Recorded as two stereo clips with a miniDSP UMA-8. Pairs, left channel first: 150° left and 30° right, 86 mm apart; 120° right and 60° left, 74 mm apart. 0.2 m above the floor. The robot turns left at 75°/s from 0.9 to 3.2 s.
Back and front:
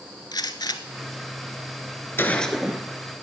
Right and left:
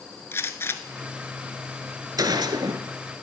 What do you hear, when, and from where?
0.3 s a gunshot: 175° right, 0.9 m; by 2.8 s 40° left, 0.9 m